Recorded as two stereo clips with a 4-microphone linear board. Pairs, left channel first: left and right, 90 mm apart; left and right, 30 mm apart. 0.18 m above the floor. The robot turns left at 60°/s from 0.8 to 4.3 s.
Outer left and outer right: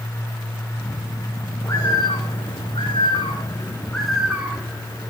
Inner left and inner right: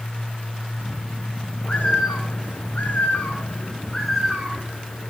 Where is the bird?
145° left, 3 m; by 5.1 s 10° right, 3 m.